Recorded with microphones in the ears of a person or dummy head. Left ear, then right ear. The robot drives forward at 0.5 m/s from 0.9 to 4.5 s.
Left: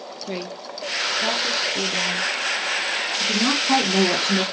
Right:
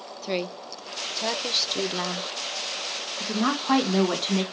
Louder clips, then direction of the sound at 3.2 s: Left 5 dB; 30° right (ahead or behind).